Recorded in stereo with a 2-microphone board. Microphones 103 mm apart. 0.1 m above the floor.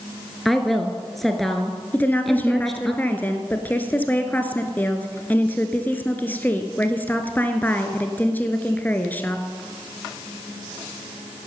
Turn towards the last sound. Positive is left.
turn(degrees=20)  # may be behind; listen again after turning